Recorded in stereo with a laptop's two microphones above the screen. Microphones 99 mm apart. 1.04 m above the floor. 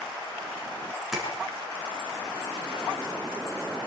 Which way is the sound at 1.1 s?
Centre (ahead or behind).